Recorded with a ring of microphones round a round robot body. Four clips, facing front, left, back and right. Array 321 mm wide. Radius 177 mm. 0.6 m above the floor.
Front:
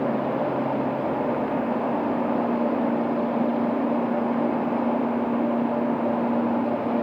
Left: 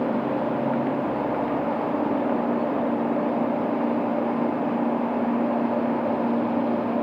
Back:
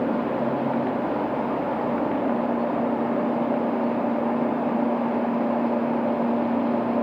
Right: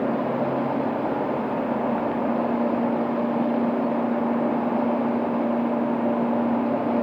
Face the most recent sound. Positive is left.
No sound to turn to.